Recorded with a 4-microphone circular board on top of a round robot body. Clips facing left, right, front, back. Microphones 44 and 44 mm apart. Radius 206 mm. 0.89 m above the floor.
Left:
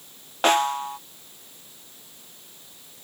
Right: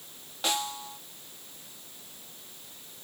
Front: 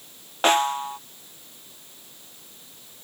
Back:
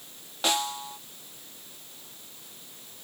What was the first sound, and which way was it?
A snare drum, 50° left.